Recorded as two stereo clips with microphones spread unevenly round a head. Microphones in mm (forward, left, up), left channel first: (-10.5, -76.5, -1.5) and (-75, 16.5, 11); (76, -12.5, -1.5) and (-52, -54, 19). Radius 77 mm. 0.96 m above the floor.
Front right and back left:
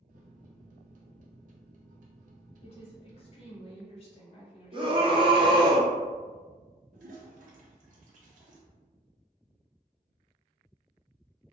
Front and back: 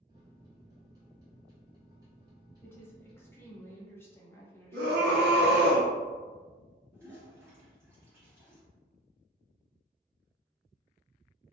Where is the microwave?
125° left, 0.5 m.